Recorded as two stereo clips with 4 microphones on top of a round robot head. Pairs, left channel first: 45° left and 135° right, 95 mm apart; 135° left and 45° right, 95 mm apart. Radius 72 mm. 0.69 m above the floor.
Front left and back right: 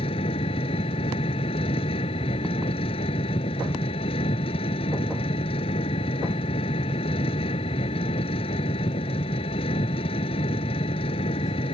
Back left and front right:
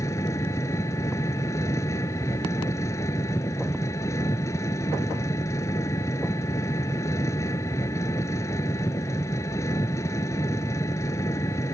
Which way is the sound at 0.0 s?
75° left.